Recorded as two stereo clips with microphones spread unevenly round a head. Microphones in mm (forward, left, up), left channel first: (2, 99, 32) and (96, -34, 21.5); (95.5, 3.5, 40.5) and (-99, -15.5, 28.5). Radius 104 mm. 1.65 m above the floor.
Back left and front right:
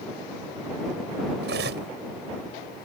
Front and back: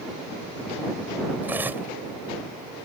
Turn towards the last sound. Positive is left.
turn(degrees=-95)